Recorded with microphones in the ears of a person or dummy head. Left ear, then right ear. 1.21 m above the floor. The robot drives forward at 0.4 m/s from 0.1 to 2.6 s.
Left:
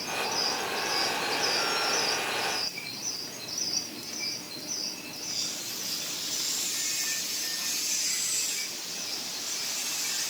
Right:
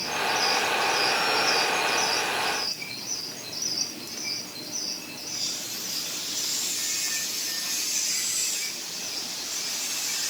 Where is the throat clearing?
I don't hear throat clearing.